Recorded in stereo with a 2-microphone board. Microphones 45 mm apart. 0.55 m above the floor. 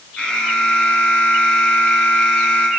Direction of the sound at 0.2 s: 30° left (ahead or behind).